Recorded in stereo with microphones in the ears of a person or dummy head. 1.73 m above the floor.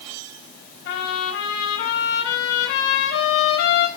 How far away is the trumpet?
About 3.5 m.